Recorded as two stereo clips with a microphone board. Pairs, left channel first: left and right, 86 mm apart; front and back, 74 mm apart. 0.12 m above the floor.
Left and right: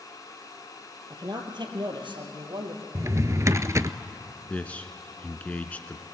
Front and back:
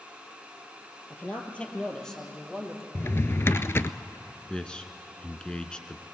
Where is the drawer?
45° right, 0.5 m.